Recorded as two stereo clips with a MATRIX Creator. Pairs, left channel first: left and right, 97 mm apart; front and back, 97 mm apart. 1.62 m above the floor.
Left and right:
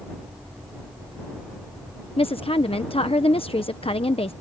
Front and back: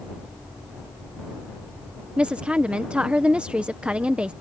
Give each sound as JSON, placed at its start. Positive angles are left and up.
{"t": 2.2, "sound": "a woman speaking", "azimuth_deg": 100}